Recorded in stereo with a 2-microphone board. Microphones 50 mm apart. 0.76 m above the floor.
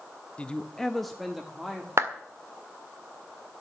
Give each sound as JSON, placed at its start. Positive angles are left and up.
{"t": 0.4, "sound": "a man speaking", "side_deg": 25, "distance_m": 0.7}
{"t": 2.0, "sound": "a clap", "side_deg": -65, "distance_m": 1.7}